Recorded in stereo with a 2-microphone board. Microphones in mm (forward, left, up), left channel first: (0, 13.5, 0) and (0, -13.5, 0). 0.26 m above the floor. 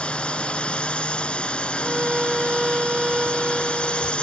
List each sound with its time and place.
0.0 s a drone: 45° left (ahead or behind)
1.8 s a violin: 30° right (ahead or behind)